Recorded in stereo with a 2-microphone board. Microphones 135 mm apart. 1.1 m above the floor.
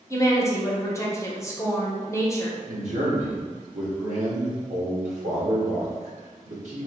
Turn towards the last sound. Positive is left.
turn(degrees=-60)  # may be behind; listen again after turning